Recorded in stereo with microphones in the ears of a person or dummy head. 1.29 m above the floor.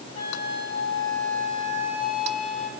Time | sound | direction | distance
0.1 | a flute | 40° left (ahead or behind) | 7 m